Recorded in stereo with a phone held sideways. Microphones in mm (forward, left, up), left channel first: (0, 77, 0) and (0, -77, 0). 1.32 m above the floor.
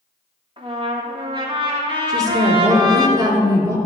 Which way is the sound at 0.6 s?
35° right (ahead or behind).